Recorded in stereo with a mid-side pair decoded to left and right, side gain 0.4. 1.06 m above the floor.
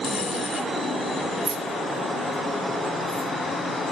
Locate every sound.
1.4 s keys jangling: 65° right, 0.5 m; by 3.3 s 35° right, 1.5 m